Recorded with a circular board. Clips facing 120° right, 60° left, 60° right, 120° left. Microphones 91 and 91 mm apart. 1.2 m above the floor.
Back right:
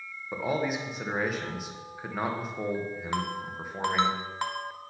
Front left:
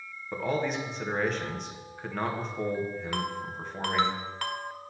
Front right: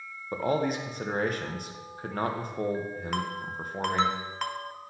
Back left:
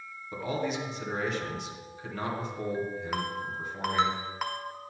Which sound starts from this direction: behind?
A ringtone, at 3.1 s.